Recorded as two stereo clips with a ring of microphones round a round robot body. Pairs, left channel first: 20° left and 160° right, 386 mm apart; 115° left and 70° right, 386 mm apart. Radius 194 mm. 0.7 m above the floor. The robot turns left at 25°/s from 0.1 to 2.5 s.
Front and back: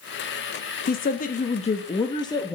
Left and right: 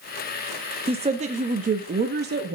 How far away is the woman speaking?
About 0.7 m.